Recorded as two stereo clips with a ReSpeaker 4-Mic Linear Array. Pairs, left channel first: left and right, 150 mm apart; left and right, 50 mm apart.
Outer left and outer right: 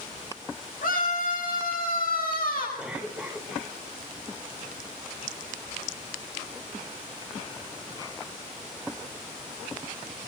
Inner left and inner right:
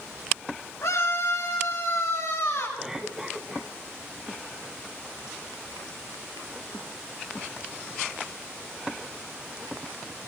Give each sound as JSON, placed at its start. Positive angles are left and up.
{"t": 0.8, "sound": "a scream", "side_deg": 70, "distance_m": 8.0}
{"t": 2.8, "sound": "a cough", "side_deg": -5, "distance_m": 4.5}